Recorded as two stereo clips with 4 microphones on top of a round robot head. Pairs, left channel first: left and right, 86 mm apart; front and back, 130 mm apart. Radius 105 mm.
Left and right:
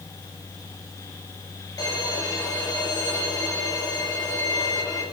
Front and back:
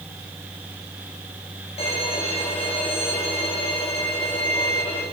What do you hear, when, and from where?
1.8 s a violin: 45° left, 3 m